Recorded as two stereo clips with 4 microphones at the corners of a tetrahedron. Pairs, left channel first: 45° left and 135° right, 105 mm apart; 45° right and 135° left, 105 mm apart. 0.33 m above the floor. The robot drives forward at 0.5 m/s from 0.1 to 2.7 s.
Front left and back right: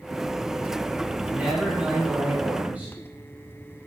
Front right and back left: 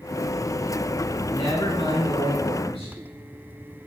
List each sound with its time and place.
1.3 s a man speaking: 60° right, 3.5 m; by 3.0 s 75° right, 3.5 m